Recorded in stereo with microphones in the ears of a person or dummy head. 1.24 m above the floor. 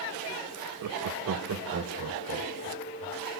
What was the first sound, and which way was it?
Laughter, 75° right (ahead or behind).